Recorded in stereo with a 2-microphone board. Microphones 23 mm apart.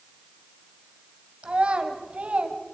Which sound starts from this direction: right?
A child speaking, at 1.4 s.